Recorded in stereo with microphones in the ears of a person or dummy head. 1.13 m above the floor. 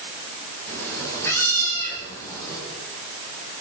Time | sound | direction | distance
0.7 | a cat meowing | 15° left (ahead or behind) | 9 m